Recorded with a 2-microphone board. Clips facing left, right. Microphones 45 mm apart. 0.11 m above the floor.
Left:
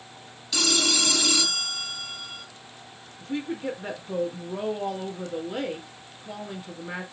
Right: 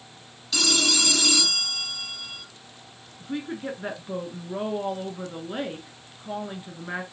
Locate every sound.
0.5 s a phone ringing: centre (ahead or behind), 1.0 m
3.2 s a woman speaking: 20° right (ahead or behind), 1.3 m